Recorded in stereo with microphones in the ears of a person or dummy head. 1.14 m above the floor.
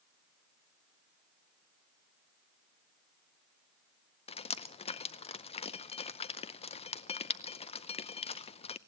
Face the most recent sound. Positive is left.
turn(degrees=30)  # may be behind; listen again after turning